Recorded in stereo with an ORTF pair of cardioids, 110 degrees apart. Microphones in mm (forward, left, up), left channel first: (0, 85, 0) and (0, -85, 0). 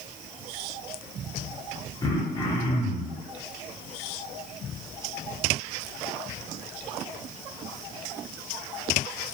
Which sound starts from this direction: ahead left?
Throat clearing, at 2.0 s.